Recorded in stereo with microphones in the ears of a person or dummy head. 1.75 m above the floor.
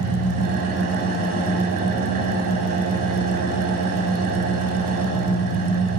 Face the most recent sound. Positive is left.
turn(degrees=-45)  # may be behind; listen again after turning